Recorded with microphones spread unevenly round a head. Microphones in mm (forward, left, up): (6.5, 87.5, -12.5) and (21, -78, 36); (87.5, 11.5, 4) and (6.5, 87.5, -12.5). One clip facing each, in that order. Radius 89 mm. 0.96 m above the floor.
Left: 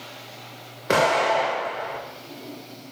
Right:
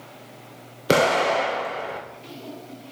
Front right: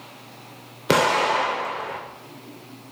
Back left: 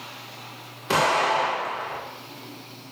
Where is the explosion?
50° right, 1.3 m.